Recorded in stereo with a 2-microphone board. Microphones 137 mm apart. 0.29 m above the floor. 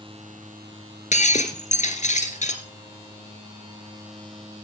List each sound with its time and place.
1.1 s breaking glass: 60° left (ahead or behind), 1.9 m